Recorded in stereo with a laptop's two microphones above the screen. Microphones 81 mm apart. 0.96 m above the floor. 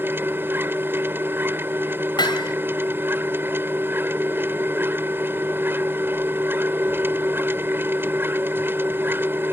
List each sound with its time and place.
0.0 s a machine running: 30° right (ahead or behind)
2.2 s hammering: 65° left (ahead or behind)